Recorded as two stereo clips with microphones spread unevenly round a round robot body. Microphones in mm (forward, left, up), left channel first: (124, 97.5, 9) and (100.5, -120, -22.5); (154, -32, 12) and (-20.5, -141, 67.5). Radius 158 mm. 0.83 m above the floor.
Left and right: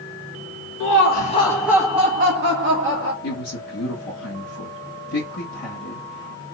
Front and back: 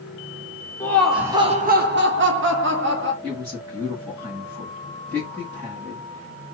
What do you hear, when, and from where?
0.8 s laughter: 90° left, 0.8 m; by 3.1 s 110° right, 1.5 m
3.2 s a woman speaking: 130° left, 1.5 m